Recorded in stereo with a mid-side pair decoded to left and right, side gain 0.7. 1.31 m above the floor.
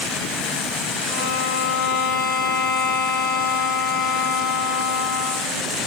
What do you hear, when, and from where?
1.1 s a violin: 65° left, 6 m